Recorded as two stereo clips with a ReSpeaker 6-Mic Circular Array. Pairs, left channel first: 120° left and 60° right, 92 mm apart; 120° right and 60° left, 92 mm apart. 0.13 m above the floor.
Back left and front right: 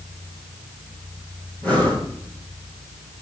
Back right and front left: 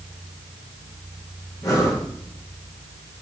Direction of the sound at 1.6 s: 170° right.